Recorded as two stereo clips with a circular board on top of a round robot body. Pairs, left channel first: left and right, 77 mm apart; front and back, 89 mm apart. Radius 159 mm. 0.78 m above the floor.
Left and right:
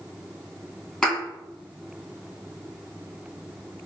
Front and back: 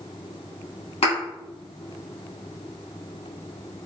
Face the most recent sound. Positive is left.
turn(degrees=10)